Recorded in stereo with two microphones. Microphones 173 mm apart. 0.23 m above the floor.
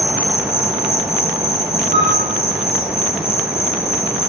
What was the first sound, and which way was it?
An insect, 65° left (ahead or behind).